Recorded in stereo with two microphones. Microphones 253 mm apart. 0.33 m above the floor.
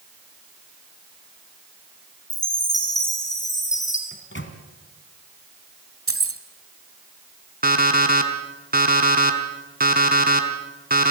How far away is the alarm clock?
About 2 m.